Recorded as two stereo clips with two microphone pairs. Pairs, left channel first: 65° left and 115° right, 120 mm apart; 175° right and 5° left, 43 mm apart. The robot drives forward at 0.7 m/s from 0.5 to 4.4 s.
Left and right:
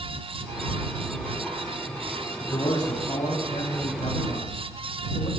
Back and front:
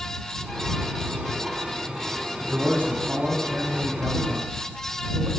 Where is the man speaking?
30° left, 5.5 m; by 5.3 s 40° left, 4.5 m.